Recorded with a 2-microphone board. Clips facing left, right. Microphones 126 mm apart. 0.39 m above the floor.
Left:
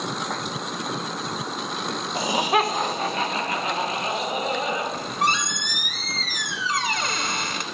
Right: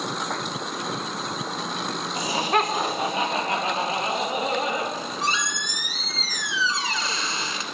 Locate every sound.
2.1 s laughter: 30° left (ahead or behind), 1.2 m; by 4.8 s 35° right (ahead or behind), 4 m
4.9 s a squeak: 60° left (ahead or behind), 0.8 m